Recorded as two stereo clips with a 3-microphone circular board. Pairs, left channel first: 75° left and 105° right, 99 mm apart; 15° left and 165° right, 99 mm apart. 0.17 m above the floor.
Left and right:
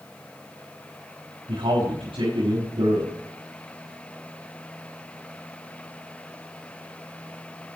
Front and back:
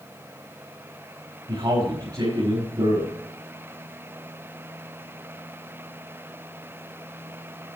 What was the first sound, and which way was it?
A man speaking, 125° right.